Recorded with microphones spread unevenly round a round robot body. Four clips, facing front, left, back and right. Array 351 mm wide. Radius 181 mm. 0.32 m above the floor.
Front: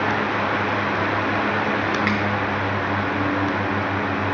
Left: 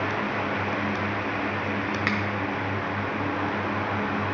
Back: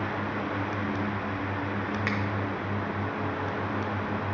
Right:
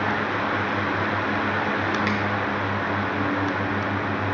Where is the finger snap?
165° right, 0.9 m.